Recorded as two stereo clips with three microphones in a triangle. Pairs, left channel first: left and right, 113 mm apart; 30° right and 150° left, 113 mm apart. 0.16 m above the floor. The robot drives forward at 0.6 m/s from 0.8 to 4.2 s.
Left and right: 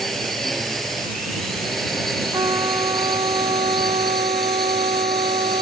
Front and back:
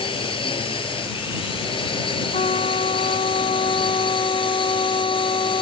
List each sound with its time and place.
0.0 s a drone: straight ahead
2.3 s a trumpet: 40° right; by 5.6 s 70° right